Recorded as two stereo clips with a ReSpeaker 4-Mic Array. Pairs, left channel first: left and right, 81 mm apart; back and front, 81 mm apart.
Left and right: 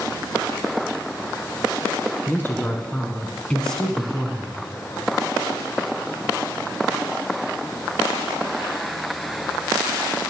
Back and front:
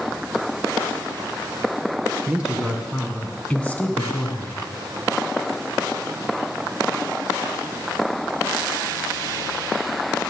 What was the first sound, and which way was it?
A woman speaking, 60° left.